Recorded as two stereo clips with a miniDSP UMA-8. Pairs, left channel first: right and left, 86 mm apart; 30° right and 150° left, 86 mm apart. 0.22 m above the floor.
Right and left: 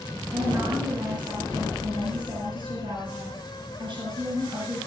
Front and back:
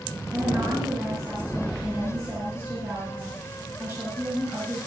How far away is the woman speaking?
About 3.5 m.